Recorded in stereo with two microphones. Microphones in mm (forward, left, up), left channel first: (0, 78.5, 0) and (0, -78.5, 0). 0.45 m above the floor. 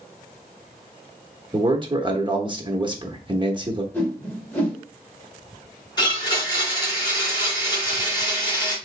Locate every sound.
1.5 s a man speaking: 30° right (ahead or behind), 0.8 m
3.9 s a whoosh: 15° left (ahead or behind), 1.4 m
6.0 s a blender: 30° left (ahead or behind), 2.5 m